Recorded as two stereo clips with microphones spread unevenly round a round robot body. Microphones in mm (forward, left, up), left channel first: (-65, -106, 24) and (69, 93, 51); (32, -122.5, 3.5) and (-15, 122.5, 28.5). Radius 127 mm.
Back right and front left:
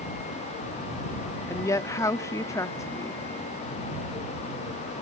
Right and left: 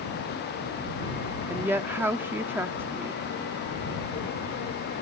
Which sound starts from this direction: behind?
A woman speaking, at 1.5 s.